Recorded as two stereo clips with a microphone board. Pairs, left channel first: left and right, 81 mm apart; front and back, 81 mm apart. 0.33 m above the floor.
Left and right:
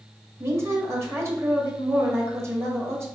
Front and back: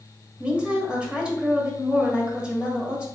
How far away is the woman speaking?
About 1.3 m.